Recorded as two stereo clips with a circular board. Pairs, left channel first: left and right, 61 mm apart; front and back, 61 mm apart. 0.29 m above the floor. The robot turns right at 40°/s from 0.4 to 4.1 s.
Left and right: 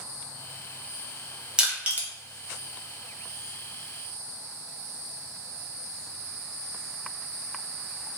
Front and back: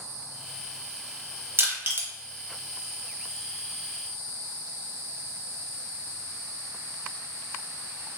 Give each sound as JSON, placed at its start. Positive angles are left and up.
{"t": 1.6, "sound": "crushing", "azimuth_deg": -160, "distance_m": 0.8}